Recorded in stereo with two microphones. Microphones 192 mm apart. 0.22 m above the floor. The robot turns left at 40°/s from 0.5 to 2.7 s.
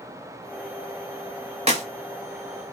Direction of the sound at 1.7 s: 35° right (ahead or behind).